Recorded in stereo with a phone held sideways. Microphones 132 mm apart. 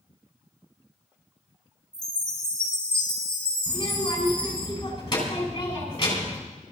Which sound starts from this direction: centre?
A chime, at 1.9 s.